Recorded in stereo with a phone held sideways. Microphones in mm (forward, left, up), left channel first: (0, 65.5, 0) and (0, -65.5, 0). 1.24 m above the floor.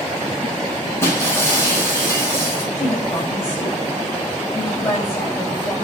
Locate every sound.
1.0 s breaking glass: 20° left (ahead or behind), 7 m
2.8 s a woman speaking: 20° left (ahead or behind), 3 m